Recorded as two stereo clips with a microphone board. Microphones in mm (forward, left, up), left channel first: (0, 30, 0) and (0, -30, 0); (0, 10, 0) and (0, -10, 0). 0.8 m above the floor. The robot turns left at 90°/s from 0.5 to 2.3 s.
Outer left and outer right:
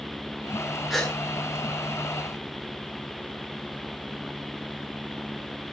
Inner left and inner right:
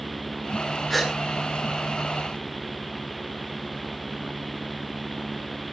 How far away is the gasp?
About 9.5 m.